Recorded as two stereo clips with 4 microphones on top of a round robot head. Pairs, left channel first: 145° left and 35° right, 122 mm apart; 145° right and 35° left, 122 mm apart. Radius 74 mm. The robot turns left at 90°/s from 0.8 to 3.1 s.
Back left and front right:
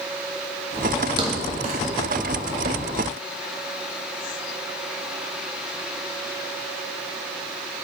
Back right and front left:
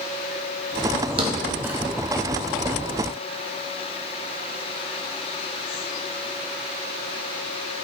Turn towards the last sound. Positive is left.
turn(degrees=-165)